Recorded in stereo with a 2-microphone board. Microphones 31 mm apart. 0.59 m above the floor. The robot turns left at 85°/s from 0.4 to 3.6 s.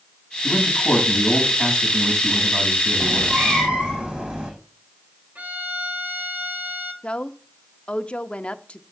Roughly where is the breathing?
I don't hear breathing.